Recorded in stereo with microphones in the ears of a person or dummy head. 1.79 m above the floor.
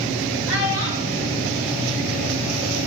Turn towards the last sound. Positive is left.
turn(degrees=35)  # may be behind; listen again after turning